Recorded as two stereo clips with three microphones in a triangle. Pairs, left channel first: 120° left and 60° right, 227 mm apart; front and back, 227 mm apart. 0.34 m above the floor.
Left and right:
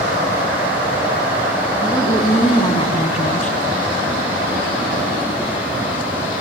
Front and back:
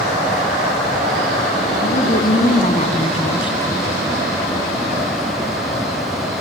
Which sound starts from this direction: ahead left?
A woman speaking, at 1.8 s.